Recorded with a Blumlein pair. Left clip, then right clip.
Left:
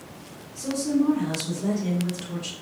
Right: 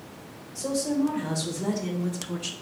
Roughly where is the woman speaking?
Ahead right.